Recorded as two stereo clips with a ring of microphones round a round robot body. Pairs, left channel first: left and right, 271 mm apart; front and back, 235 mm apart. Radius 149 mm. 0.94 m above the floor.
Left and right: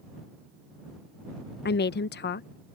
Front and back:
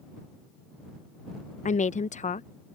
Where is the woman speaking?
50° left.